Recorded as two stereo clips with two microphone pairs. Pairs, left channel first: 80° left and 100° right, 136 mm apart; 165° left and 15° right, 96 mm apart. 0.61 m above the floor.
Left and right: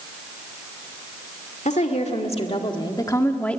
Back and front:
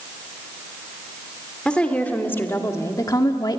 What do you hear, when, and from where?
1.6 s a woman speaking: 90° left, 2 m; by 3.6 s 165° left, 1.6 m